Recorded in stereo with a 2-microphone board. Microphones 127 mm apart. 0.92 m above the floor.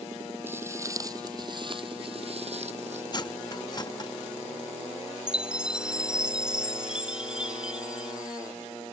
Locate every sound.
0.5 s footsteps: 15° right (ahead or behind); by 3.0 s 65° right (ahead or behind)
3.1 s cutlery clinking: 35° left (ahead or behind)
5.3 s a chime: 5° right (ahead or behind)